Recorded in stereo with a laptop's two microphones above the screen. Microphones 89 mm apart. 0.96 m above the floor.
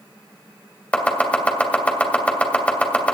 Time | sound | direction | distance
0.9 | chopping | 15° left (ahead or behind) | 2.5 m